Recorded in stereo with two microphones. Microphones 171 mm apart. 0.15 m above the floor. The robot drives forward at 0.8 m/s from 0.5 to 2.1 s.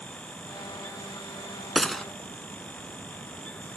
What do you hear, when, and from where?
1.8 s a gunshot: centre (ahead or behind)